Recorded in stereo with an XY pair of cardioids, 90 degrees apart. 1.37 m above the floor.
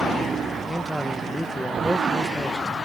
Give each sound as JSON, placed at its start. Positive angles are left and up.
{"t": 0.7, "sound": "a man speaking", "azimuth_deg": 5}